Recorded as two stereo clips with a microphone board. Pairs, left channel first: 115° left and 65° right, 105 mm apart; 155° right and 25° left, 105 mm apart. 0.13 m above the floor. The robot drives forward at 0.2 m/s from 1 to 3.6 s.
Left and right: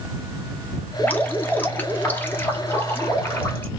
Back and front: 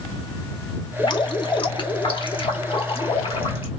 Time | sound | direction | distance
1.0 | dripping | straight behind | 0.6 m